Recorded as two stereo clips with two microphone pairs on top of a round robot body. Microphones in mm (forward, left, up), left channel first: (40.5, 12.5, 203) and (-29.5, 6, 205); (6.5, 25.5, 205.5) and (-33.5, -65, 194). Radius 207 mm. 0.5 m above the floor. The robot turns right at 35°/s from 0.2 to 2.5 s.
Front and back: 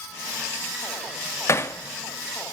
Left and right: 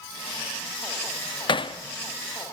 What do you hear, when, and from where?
1.5 s hammering: 40° left, 1.0 m; by 1.8 s 50° left, 1.0 m